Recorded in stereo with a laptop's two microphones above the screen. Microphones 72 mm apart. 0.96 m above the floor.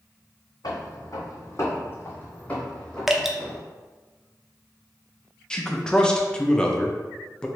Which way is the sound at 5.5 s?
15° left (ahead or behind).